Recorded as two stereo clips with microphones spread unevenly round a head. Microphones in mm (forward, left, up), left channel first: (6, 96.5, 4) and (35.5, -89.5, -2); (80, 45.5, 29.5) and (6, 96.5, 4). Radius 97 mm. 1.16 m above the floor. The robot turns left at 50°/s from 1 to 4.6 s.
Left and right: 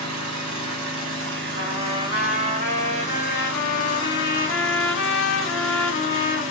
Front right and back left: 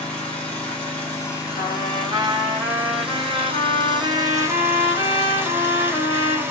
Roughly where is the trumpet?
Right.